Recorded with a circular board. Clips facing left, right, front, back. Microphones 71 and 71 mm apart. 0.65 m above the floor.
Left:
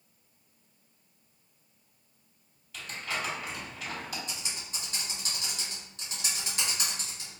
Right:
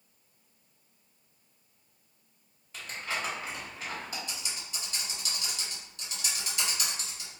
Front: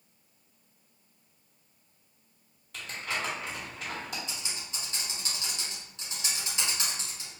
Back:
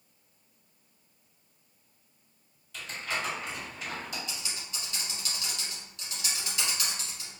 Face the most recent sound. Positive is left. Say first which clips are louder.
# even, even
turn(degrees=45)